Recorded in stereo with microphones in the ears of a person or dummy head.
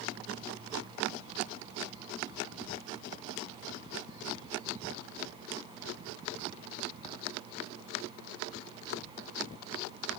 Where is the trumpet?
No trumpet in this recording.